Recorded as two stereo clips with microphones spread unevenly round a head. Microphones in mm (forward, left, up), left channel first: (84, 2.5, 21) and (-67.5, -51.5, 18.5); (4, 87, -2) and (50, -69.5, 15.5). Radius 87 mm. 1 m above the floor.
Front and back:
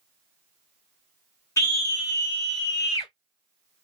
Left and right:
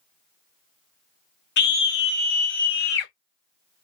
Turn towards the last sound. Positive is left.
turn(degrees=90)